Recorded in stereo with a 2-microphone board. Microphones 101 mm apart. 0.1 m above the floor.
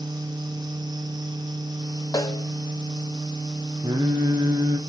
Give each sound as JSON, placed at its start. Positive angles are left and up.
{"t": 2.1, "sound": "a snare drum", "side_deg": 40, "distance_m": 1.3}
{"t": 3.8, "sound": "singing", "side_deg": -40, "distance_m": 1.7}